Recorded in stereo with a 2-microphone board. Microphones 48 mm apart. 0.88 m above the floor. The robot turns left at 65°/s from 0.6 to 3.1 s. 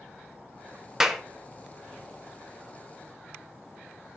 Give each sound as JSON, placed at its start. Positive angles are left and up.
{"t": 1.0, "sound": "a clap", "side_deg": -10, "distance_m": 1.0}